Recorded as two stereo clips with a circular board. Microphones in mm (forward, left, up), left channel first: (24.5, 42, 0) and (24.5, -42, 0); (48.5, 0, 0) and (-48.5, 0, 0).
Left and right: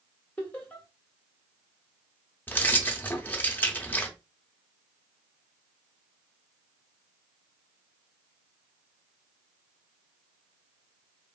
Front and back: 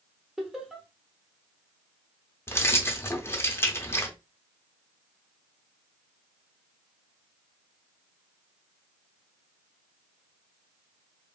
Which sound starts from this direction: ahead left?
Keys jangling, at 2.5 s.